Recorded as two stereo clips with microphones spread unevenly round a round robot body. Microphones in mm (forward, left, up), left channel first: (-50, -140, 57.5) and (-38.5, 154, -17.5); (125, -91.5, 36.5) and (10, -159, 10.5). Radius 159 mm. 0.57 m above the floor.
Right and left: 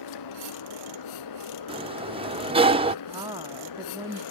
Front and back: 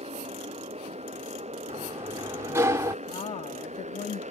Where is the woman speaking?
40° left.